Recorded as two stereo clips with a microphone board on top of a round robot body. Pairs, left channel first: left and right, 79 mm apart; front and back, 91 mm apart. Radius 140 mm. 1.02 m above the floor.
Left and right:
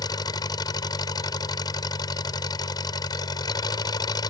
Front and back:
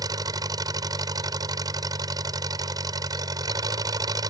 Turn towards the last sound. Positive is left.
turn(degrees=130)